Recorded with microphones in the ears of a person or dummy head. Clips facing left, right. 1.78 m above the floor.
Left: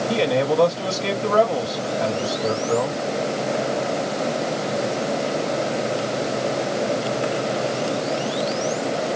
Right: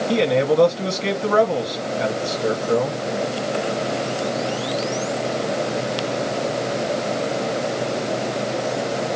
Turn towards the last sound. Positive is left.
turn(degrees=-40)  # may be behind; listen again after turning